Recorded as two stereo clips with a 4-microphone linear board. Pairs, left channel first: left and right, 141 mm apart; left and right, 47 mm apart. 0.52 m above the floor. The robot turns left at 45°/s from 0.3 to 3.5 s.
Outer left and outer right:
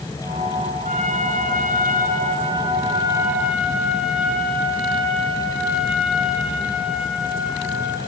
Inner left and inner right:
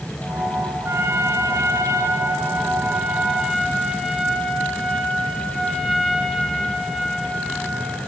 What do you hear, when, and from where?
0.8 s a trumpet: 60° right, 4.5 m; by 8.0 s straight behind, 4.5 m